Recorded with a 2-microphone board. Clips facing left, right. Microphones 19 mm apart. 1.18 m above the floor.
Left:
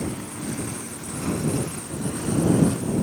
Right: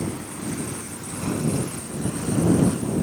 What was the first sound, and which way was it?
Only background noise.